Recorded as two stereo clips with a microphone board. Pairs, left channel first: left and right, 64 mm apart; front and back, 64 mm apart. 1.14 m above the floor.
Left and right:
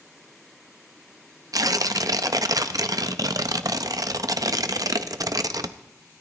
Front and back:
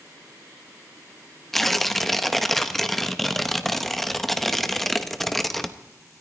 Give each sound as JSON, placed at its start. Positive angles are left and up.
{"t": 1.5, "sound": "tearing paper", "azimuth_deg": -85, "distance_m": 0.7}